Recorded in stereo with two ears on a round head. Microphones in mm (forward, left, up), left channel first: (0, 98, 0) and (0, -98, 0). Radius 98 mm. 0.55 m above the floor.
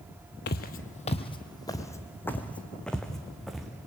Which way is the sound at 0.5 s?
50° left (ahead or behind).